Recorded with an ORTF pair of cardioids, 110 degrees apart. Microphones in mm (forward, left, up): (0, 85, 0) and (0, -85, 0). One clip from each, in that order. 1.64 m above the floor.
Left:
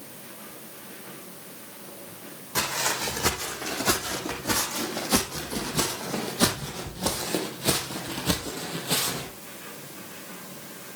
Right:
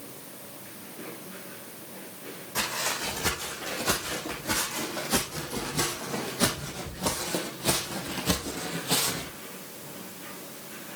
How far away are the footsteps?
About 6 m.